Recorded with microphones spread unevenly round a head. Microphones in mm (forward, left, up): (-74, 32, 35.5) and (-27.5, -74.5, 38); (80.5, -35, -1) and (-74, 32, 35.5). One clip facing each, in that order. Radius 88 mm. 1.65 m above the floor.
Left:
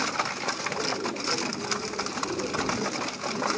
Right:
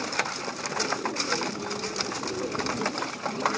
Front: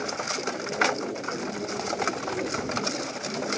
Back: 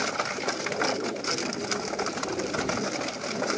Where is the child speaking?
I don't hear a child speaking.